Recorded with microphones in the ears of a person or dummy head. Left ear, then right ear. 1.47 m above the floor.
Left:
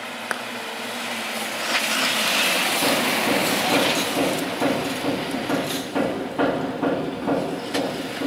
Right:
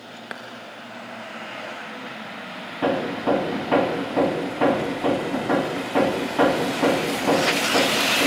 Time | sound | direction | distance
0.3 | a clap | 35° left (ahead or behind) | 1.7 m
2.8 | hammering | 20° right (ahead or behind) | 2.5 m